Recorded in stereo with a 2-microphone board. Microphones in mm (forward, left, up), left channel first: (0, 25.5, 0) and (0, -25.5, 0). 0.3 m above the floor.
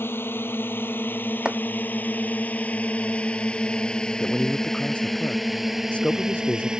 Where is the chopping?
20° right (ahead or behind).